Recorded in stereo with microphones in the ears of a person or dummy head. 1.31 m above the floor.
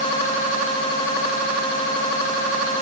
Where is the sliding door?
No sliding door in this recording.